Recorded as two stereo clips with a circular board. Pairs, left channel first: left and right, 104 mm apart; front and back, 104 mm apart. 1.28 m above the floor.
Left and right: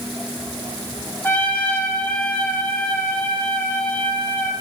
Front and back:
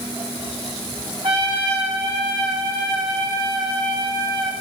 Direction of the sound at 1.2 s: 155° left.